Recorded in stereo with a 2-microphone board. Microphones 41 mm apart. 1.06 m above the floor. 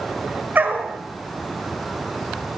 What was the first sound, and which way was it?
A dog barking, 55° right (ahead or behind).